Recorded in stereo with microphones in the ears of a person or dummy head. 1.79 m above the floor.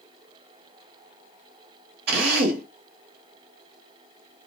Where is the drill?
60° right (ahead or behind), 1.1 m.